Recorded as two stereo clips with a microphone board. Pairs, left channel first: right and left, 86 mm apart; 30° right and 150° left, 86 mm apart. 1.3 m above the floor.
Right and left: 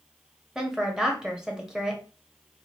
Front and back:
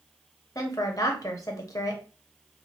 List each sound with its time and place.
0.6 s a woman speaking: 10° left, 0.8 m